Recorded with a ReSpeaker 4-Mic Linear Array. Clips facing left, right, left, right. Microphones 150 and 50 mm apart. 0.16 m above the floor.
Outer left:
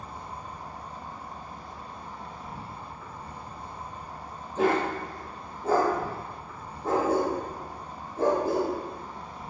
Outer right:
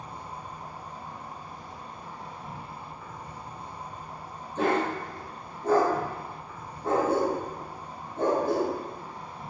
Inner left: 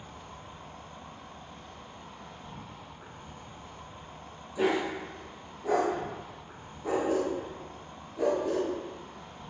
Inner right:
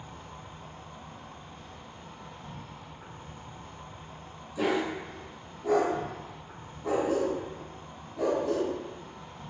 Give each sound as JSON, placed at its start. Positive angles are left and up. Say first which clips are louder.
{"t": 0.0, "sound": "an insect", "louder": "even, inner right 1 dB", "side_deg": 35, "distance_m": 1.5}
{"t": 4.5, "sound": "a dog barking", "louder": "outer left 1 dB, even", "side_deg": 5, "distance_m": 1.6}